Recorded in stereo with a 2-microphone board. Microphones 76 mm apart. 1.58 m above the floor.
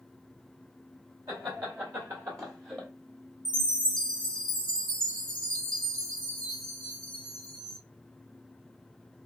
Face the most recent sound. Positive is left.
turn(degrees=-80)